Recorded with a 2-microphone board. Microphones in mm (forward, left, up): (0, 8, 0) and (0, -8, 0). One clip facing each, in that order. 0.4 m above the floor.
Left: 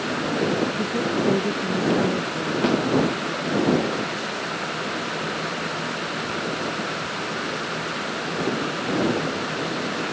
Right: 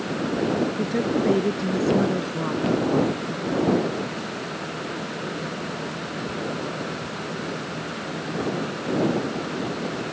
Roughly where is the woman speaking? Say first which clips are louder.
Even; centre.